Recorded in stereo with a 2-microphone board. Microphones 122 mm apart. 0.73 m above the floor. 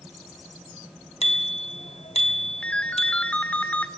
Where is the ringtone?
10° left (ahead or behind), 1.6 m.